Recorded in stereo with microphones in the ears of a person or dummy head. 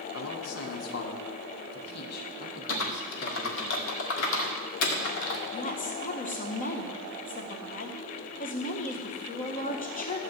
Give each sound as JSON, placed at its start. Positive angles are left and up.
{"t": 0.1, "sound": "a man speaking", "side_deg": 80, "distance_m": 1.7}
{"t": 2.7, "sound": "typing on a keyboard", "side_deg": 70, "distance_m": 1.9}
{"t": 5.5, "sound": "a woman speaking", "side_deg": 35, "distance_m": 1.6}